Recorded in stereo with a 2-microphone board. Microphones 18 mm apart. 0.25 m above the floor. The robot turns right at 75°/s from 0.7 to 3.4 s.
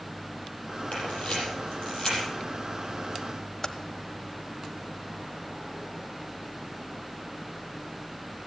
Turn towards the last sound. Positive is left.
turn(degrees=15)  # may be behind; listen again after turning